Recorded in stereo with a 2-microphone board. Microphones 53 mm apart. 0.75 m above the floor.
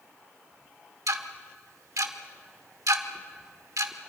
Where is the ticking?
80° right, 1.3 m.